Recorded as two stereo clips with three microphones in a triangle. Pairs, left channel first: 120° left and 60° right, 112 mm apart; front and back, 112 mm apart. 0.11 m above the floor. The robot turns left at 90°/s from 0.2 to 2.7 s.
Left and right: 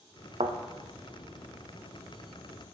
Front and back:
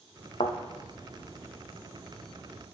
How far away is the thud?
About 0.5 m.